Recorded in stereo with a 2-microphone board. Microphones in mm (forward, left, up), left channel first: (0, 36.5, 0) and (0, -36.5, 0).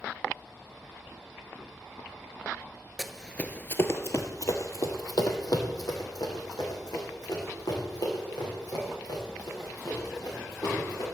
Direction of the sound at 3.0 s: Centre (ahead or behind).